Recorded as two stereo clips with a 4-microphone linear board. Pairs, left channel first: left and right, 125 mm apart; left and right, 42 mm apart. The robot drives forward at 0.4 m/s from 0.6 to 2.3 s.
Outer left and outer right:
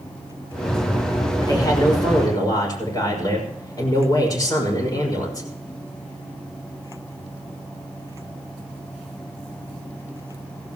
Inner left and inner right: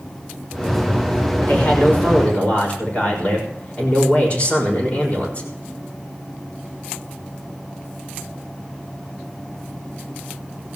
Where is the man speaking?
35° left (ahead or behind), 5.5 m; by 5.5 s 30° left (ahead or behind), 5.5 m.